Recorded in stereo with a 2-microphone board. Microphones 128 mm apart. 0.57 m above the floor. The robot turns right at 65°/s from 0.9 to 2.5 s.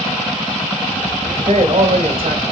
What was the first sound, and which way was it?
A man speaking, 100° right.